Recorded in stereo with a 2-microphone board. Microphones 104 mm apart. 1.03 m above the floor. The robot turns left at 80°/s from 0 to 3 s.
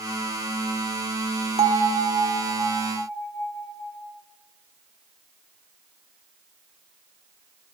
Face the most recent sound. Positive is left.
turn(degrees=165)